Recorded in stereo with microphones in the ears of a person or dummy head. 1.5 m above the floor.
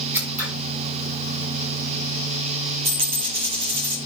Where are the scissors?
15° right (ahead or behind), 4 m.